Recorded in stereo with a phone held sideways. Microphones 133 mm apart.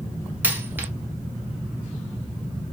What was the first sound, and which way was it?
A dropped coin, 15° right (ahead or behind).